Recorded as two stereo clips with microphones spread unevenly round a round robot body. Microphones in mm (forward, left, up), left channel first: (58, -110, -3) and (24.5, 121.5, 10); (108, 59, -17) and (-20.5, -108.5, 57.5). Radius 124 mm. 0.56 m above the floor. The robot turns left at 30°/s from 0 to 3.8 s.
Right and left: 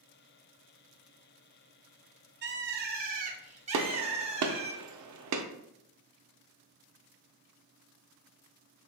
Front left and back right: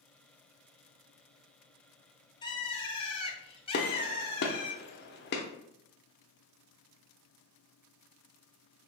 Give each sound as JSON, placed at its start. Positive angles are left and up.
{"t": 2.4, "sound": "a bird", "azimuth_deg": 85, "distance_m": 0.6}
{"t": 3.7, "sound": "a gunshot", "azimuth_deg": 90, "distance_m": 0.6}